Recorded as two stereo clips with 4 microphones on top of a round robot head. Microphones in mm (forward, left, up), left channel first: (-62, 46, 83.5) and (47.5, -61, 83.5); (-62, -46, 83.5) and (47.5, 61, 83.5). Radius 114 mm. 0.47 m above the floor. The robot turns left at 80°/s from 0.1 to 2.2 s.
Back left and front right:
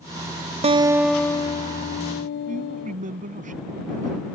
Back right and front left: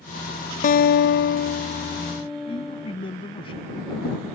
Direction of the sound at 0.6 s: 95° right.